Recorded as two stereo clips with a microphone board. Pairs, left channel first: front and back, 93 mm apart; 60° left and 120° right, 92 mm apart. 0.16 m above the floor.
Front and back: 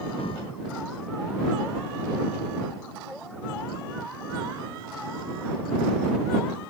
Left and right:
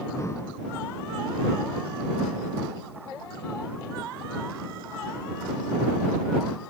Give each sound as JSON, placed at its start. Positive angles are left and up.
{"t": 0.2, "sound": "breathing", "azimuth_deg": 0}